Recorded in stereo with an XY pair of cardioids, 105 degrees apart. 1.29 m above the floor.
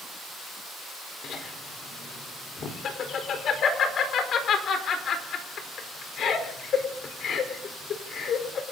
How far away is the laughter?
About 4.5 m.